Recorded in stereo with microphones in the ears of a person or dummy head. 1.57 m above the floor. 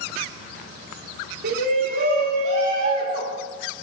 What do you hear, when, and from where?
1.4 s a shout: 60° right (ahead or behind), 3.5 m; by 3.4 s 30° right (ahead or behind), 3 m